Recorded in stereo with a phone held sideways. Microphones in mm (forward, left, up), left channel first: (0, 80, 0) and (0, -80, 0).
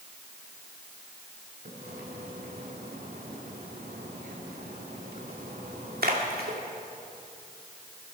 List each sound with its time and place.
1.6 s a splash: 70° right (ahead or behind), 2.0 m